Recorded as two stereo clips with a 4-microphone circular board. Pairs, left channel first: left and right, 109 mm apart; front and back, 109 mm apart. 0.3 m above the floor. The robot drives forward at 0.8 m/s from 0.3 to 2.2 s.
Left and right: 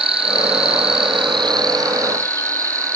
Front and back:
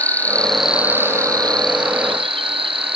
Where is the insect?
75° right, 0.9 m; by 3.0 s 150° right, 1.6 m.